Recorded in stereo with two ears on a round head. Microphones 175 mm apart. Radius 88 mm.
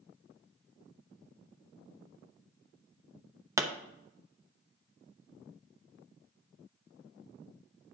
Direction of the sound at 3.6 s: 15° right (ahead or behind).